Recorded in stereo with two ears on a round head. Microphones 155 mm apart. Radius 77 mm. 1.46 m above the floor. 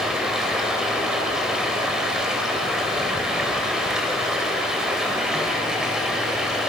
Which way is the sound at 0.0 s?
5° right (ahead or behind).